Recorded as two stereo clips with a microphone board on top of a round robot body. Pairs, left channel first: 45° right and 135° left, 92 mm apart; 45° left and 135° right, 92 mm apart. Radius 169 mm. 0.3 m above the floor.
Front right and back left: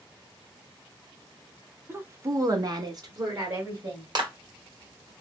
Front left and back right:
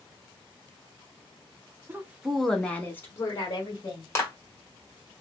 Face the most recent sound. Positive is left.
turn(degrees=100)